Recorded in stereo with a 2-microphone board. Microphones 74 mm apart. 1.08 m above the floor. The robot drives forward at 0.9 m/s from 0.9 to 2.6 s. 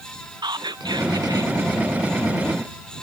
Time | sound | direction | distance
0.4 | whispering | 65° right (ahead or behind) | 0.7 m